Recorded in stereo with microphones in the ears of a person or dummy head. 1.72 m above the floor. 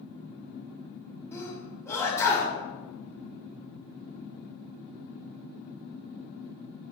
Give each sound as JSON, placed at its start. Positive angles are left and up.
{"t": 1.3, "sound": "a sneeze", "side_deg": 15, "distance_m": 3.5}